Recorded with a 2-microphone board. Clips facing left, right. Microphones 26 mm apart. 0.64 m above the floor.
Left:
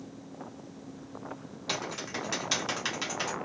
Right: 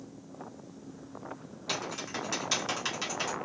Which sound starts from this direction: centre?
Typing on a keyboard, at 1.7 s.